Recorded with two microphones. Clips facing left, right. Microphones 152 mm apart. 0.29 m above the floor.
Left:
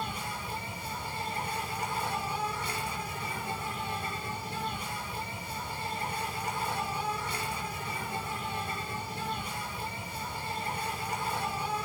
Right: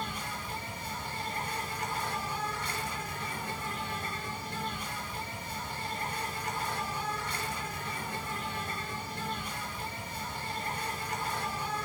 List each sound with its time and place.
0.0 s an insect: 10° left (ahead or behind), 6.5 m